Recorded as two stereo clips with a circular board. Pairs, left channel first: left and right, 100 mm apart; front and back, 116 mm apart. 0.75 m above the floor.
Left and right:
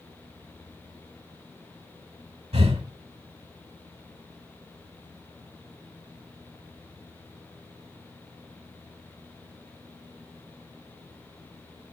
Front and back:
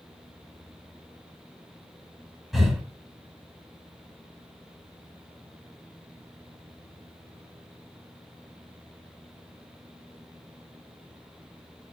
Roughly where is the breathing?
Right.